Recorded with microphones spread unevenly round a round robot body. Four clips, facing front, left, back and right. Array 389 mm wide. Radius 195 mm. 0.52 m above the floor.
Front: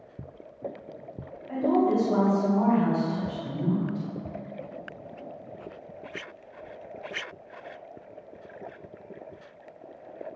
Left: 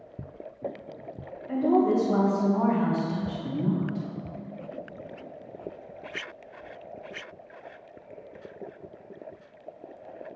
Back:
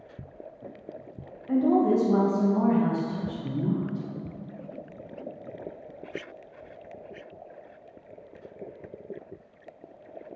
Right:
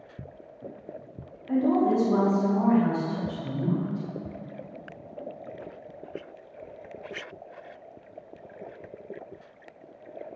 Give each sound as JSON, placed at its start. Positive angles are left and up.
{"t": 1.5, "sound": "a woman speaking", "azimuth_deg": 170, "distance_m": 3.0}